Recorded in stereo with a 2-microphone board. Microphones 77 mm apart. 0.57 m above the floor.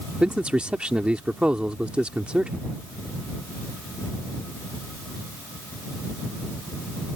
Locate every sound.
0.2 s a man speaking: 15° right (ahead or behind)